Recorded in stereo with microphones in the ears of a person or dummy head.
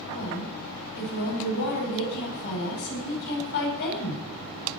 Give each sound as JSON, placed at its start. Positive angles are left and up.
{"t": 0.1, "sound": "a woman speaking", "side_deg": 60, "distance_m": 8.0}